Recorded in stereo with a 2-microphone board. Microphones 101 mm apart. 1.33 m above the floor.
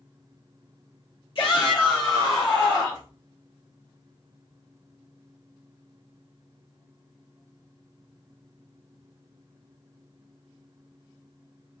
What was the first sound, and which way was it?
A shout, 60° left (ahead or behind).